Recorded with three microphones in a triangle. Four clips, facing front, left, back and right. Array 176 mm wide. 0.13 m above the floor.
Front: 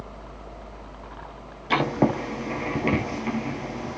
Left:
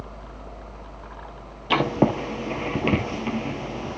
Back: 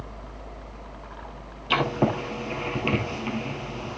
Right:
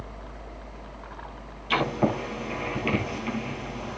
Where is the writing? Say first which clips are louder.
Left 4 dB, front 2 dB; 80° left, 1.9 m.